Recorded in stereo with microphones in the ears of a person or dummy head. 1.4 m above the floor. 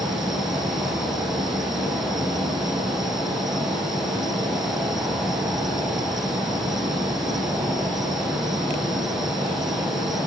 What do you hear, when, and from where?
0.0 s an insect: centre (ahead or behind)